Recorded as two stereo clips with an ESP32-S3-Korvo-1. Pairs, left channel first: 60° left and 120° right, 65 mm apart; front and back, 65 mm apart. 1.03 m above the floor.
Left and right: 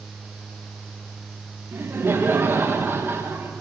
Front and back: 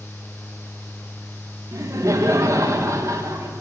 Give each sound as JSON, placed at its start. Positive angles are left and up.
{"t": 1.7, "sound": "laughter", "azimuth_deg": -165, "distance_m": 1.1}